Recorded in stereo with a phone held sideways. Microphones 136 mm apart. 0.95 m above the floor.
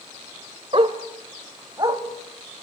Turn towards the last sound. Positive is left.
turn(degrees=-30)  # may be behind; listen again after turning